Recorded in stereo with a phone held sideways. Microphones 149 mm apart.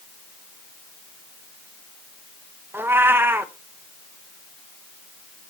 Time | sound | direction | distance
2.7 | a cat meowing | 15° right (ahead or behind) | 0.7 m